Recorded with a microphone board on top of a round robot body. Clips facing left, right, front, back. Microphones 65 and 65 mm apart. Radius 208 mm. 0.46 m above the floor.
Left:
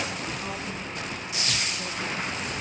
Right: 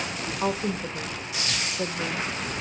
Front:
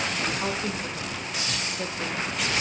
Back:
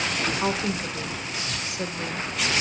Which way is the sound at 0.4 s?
100° right.